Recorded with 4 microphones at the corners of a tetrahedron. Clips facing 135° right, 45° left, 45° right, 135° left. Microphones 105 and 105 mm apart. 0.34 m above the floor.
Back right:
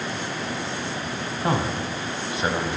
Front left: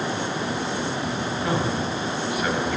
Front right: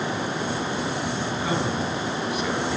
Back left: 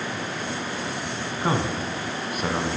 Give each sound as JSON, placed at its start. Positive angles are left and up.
{"t": 1.4, "sound": "a man speaking", "azimuth_deg": 175, "distance_m": 3.0}